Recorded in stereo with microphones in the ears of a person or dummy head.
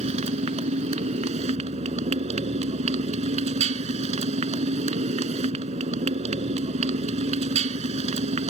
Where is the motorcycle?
35° right (ahead or behind).